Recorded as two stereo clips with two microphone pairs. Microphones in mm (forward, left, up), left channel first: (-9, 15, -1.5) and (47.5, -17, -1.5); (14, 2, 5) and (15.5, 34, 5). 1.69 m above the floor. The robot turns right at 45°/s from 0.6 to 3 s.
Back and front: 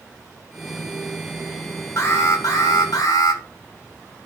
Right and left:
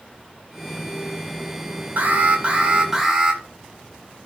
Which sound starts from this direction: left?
An alarm, at 2.0 s.